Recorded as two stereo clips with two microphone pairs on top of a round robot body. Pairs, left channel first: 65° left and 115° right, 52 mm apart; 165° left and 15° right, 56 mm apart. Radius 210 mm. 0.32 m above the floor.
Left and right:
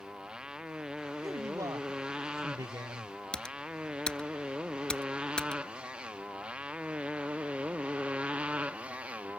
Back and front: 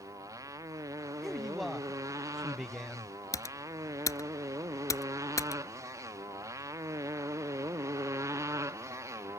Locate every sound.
0.0 s a motorcycle: 40° right; by 9.4 s 50° right
1.2 s a man speaking: 110° right
3.3 s typing on a keyboard: 140° left